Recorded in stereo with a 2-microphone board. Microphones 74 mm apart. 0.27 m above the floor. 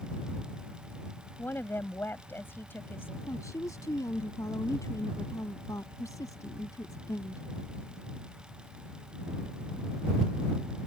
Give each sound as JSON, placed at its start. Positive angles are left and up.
{"t": 1.4, "sound": "a woman speaking", "side_deg": 30}
{"t": 3.3, "sound": "a woman speaking", "side_deg": 50}